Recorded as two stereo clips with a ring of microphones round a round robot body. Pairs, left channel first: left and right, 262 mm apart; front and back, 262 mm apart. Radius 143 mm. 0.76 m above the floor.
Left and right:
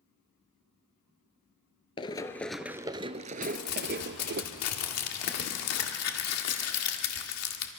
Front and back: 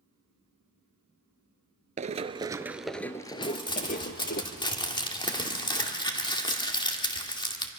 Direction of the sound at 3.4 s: 70° left.